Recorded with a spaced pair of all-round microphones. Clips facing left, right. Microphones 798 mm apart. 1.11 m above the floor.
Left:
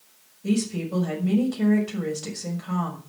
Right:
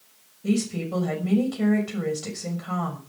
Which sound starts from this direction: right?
A woman speaking, at 0.4 s.